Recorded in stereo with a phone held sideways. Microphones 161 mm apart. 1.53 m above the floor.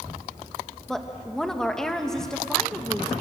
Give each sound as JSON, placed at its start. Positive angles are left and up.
{"t": 0.9, "sound": "a woman speaking", "side_deg": 5, "distance_m": 1.7}